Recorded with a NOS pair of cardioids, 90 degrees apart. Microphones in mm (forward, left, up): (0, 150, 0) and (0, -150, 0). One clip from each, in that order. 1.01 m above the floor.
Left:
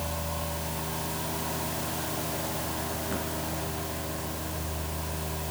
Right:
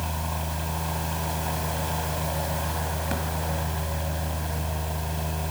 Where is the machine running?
65° right, 4.5 m.